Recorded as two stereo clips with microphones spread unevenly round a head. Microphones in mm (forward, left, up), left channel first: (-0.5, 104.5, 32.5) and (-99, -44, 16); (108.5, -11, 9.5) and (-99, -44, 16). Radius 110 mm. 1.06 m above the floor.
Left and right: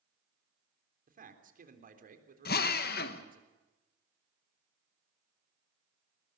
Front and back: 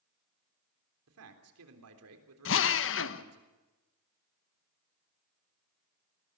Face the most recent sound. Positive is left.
turn(degrees=20)